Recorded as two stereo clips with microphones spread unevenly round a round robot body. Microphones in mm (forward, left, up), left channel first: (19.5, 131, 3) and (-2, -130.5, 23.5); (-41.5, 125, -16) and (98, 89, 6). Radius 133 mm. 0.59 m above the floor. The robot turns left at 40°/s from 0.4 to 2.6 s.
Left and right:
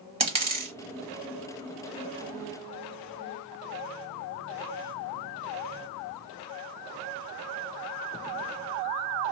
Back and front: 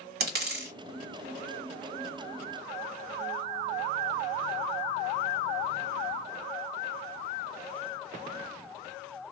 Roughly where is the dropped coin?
Ahead right.